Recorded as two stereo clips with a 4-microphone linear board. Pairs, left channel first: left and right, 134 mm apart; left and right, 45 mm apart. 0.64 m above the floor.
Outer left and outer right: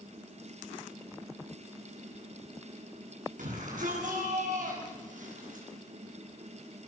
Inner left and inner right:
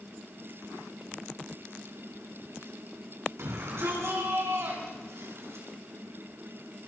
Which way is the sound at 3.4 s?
75° right (ahead or behind).